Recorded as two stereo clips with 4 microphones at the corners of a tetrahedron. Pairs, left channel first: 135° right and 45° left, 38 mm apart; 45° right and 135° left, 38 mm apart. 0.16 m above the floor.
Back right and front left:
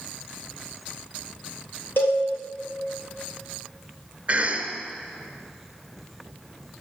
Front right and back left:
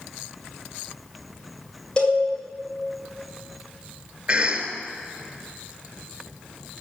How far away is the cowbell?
About 7 m.